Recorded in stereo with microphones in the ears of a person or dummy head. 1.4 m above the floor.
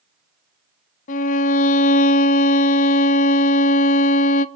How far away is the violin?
About 0.6 m.